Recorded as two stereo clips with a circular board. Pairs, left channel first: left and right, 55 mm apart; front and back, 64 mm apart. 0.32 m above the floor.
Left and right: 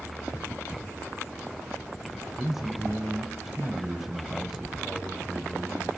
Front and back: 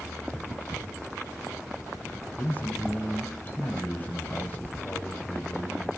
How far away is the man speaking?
About 1.0 m.